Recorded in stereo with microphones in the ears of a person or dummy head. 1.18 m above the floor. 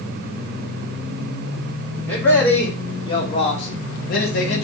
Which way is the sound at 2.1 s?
10° left (ahead or behind).